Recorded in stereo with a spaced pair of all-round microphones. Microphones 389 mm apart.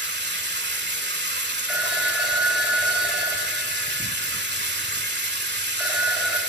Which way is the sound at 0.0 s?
25° right (ahead or behind).